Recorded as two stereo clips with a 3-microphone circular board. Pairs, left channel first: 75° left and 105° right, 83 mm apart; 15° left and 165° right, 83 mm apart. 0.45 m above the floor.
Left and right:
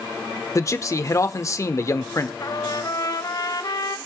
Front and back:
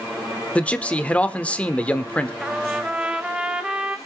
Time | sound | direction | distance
0.6 | a man speaking | 80° left | 0.9 m
2.4 | a trumpet | 115° left | 0.9 m